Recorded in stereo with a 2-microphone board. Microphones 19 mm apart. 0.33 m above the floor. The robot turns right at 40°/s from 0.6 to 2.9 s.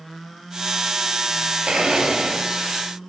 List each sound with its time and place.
1.7 s a blender: 80° right, 0.6 m; by 2.5 s 45° right, 0.6 m